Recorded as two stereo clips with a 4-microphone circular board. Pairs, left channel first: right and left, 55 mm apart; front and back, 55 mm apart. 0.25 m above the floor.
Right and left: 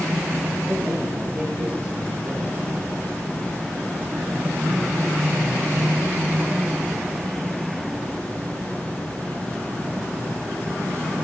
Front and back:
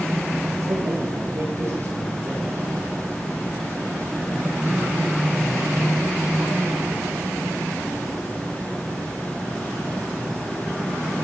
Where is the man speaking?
150° left, 9 m; by 2.9 s 135° left, 10 m.